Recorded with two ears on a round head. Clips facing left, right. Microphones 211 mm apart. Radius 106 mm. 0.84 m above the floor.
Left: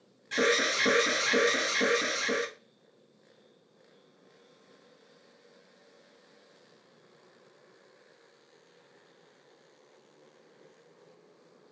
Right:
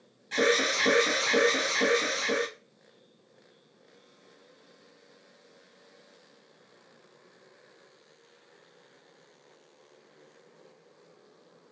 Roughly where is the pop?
I don't hear a pop.